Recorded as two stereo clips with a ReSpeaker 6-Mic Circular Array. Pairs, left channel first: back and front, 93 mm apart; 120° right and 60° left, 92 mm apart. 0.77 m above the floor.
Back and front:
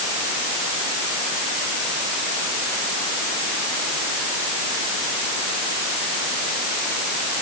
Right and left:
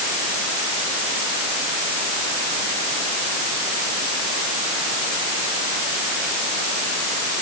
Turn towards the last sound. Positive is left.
No sound to turn to.